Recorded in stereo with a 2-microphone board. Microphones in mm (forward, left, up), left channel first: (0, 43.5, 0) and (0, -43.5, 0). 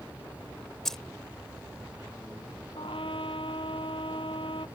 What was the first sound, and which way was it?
Keys jangling, 5° left (ahead or behind).